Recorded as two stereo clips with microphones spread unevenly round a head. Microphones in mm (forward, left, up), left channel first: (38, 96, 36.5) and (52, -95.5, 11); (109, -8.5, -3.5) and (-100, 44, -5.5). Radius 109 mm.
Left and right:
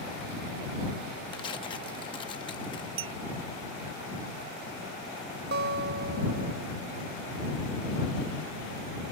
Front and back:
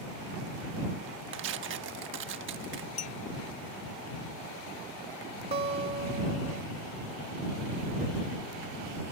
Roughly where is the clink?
Right.